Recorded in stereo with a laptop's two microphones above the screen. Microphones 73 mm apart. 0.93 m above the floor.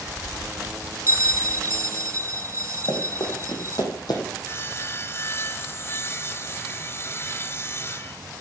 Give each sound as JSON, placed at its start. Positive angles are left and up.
{"t": 1.1, "sound": "a bell", "side_deg": -40, "distance_m": 0.5}
{"t": 2.9, "sound": "running footsteps", "side_deg": 70, "distance_m": 4.0}
{"t": 4.4, "sound": "sawing", "side_deg": 35, "distance_m": 0.6}